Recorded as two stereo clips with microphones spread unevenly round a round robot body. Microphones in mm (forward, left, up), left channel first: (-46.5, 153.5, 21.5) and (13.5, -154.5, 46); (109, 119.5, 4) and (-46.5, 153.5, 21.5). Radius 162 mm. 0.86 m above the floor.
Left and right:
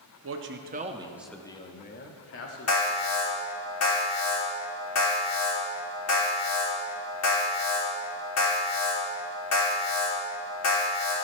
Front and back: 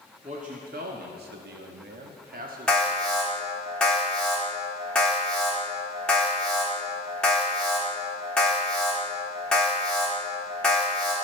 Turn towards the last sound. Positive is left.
turn(degrees=70)